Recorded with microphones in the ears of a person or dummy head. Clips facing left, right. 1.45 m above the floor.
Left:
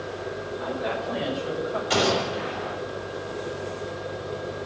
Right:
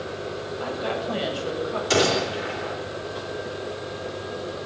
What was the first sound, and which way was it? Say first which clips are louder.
A woman speaking: right 1 dB; 45° right (ahead or behind).